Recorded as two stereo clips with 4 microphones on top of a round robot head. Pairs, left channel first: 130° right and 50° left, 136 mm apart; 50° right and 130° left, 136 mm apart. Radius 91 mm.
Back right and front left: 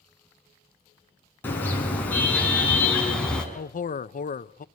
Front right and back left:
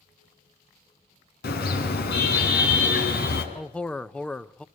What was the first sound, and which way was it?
A car horn, 55° right.